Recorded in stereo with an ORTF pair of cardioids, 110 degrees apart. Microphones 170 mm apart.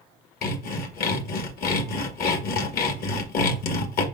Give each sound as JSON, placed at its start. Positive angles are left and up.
{"t": 0.4, "sound": "sawing", "azimuth_deg": 60, "distance_m": 1.7}